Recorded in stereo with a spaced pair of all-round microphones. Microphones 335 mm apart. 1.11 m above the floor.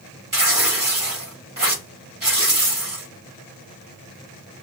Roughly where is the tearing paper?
Right.